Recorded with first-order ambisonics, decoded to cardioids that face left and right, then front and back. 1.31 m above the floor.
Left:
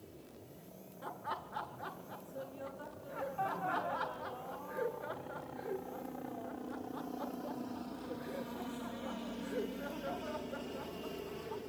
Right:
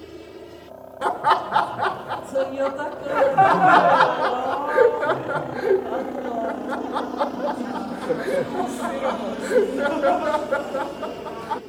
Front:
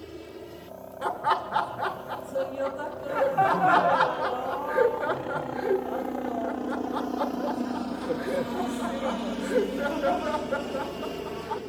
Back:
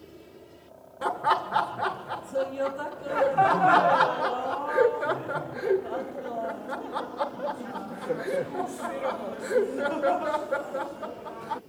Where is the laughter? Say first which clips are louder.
Right 23 dB, back 1 dB; 95° right.